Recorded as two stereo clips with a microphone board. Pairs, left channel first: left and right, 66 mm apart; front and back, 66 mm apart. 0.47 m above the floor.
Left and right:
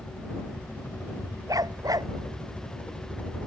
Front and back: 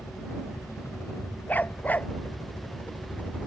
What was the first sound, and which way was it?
A helicopter, 25° left.